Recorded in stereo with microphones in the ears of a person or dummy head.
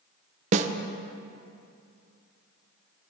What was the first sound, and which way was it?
A snare drum, 40° right (ahead or behind).